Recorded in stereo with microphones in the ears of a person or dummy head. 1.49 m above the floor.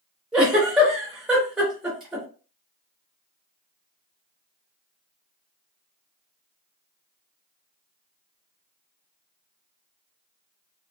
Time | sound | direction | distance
0.3 | a giggle | 5° right (ahead or behind) | 1.1 m